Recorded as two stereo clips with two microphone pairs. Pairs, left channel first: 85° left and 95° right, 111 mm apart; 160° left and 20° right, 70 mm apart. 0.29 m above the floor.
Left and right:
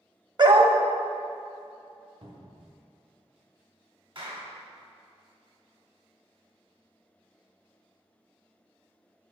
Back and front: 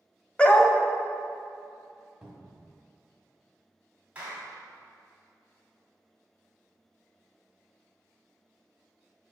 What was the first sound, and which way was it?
A dog barking, 130° right.